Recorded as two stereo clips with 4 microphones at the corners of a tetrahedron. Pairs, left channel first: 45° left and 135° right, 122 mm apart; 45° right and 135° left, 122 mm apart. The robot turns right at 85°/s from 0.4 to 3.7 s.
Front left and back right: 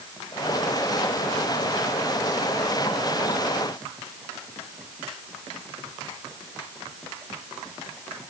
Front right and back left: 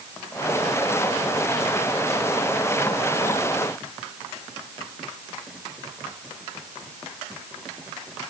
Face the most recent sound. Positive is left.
No sound to turn to.